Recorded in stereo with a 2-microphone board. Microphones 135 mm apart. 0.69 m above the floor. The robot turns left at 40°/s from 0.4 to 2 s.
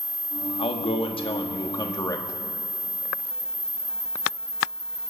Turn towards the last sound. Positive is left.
turn(degrees=40)